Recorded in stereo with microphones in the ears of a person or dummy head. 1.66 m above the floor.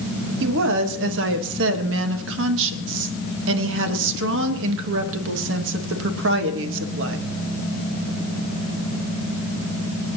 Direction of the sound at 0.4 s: 65° right (ahead or behind).